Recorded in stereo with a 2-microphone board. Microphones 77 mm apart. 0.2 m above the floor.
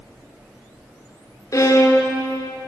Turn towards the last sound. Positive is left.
turn(degrees=45)  # may be behind; listen again after turning